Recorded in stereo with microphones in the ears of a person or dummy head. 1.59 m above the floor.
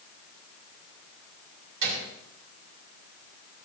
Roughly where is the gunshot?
Right.